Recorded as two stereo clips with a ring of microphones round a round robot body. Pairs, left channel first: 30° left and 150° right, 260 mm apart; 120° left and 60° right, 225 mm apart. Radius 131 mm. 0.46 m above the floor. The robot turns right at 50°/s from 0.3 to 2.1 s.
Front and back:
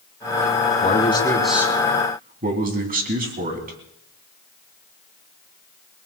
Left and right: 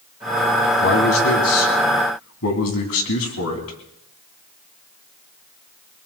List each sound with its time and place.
0.8 s a man speaking: 85° left, 3 m; by 3.8 s 150° left, 3 m